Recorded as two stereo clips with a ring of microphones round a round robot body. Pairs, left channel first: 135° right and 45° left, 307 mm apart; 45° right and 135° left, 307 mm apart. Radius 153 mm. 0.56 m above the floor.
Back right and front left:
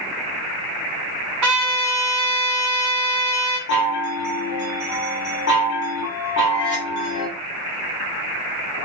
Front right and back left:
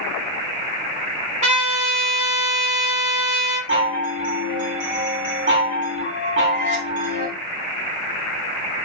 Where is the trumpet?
70° left, 1.6 m.